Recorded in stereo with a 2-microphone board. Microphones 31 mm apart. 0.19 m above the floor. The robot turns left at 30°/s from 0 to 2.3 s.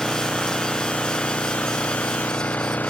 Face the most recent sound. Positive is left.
turn(degrees=110)